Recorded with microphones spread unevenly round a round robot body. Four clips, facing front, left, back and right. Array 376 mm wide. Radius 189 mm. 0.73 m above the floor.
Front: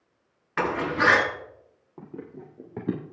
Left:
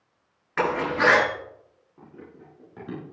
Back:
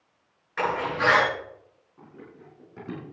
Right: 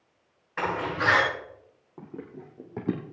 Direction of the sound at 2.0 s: 35° right.